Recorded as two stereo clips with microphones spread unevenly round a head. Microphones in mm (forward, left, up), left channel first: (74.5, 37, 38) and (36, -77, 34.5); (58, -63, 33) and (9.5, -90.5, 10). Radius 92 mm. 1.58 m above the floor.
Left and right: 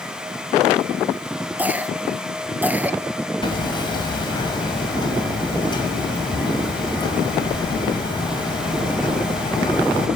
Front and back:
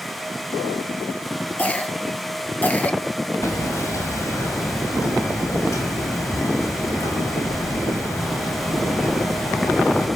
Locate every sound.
1.6 s a cough: 35° right, 1.9 m
3.4 s hammering: 20° left, 5.5 m